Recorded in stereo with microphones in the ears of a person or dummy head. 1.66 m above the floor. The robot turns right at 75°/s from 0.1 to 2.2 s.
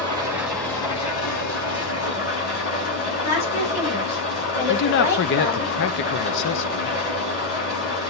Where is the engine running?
30° right, 7 m; by 8.1 s 130° left, 7 m.